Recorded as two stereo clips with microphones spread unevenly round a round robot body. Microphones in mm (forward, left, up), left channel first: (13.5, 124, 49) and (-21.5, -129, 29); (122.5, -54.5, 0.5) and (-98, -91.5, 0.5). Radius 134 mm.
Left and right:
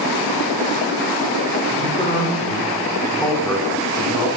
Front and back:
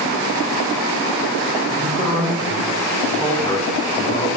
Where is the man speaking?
135° left, 1.2 m; by 4.3 s 25° right, 1.1 m.